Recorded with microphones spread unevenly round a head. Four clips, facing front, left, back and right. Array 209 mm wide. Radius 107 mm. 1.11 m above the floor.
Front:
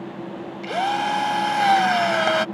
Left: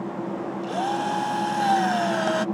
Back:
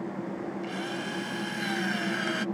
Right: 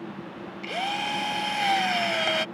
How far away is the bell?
No bell in this recording.